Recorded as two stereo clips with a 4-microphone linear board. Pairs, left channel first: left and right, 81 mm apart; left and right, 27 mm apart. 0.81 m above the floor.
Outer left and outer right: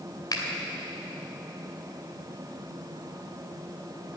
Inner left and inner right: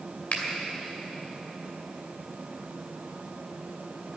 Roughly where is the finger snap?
Left.